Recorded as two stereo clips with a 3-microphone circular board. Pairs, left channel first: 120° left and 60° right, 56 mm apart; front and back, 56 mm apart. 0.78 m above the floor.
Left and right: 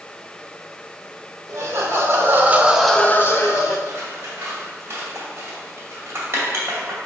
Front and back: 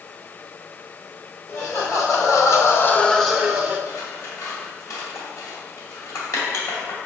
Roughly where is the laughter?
Ahead right.